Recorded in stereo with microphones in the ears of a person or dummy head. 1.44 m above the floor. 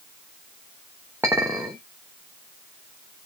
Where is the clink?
10° right (ahead or behind), 0.9 m.